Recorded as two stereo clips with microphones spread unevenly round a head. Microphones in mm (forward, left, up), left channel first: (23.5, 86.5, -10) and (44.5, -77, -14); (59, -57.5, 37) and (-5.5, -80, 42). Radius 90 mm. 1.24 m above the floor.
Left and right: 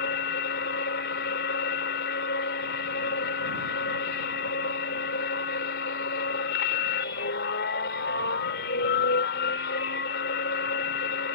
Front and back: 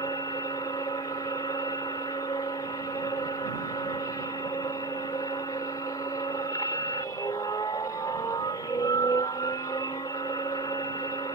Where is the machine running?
80° left.